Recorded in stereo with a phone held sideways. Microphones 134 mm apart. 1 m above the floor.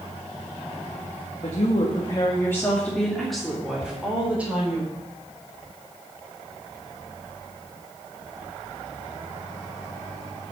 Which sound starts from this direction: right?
A cupboard door, at 3.8 s.